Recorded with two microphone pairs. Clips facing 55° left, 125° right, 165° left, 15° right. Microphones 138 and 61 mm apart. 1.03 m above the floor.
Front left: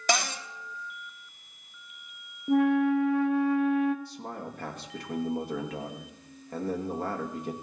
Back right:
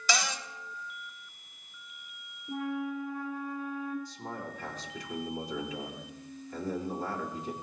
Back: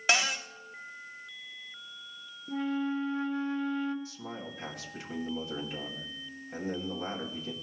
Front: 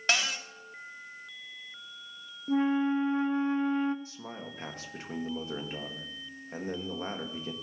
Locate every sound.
0.1 s a cupboard door: 80° left, 1.0 m
2.5 s a flute: 45° left, 0.5 m
4.0 s a man speaking: 40° left, 1.6 m